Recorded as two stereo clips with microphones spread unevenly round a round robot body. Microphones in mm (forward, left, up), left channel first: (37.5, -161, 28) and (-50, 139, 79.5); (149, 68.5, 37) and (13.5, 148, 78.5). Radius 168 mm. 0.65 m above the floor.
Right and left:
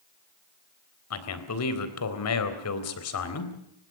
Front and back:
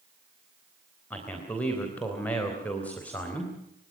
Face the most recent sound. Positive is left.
turn(degrees=-110)